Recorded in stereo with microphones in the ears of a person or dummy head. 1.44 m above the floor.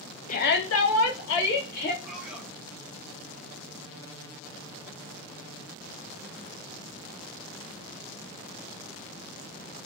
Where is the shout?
40° left (ahead or behind), 0.6 m; by 1.9 s 55° left (ahead or behind), 1.2 m.